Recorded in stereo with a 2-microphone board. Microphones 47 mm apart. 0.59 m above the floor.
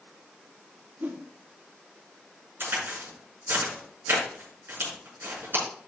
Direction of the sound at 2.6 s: 50° right (ahead or behind).